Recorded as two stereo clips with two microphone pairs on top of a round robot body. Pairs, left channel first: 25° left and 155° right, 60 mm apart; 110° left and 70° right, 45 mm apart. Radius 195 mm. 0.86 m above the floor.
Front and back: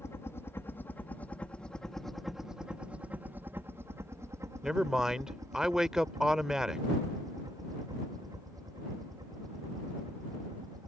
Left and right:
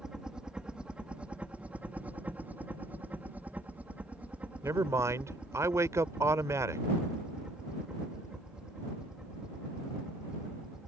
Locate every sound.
0.0 s a helicopter: straight ahead; by 10.9 s 145° right
4.6 s a man speaking: 70° right